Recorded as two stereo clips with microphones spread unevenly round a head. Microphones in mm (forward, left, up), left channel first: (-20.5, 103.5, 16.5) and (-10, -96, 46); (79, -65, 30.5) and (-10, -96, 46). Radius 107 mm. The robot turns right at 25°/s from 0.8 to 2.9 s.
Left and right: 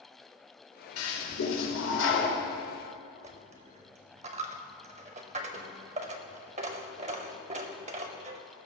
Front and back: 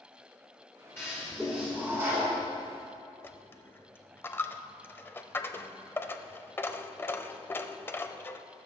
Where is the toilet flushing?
95° left, 2 m; by 2.4 s 135° left, 2 m.